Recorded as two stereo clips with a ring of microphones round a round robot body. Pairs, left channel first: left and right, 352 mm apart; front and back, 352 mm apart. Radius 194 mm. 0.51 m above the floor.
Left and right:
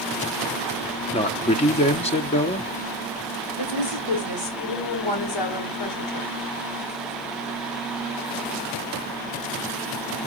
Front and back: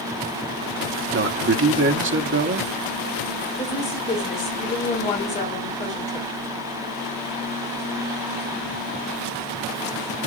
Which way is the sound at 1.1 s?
150° left.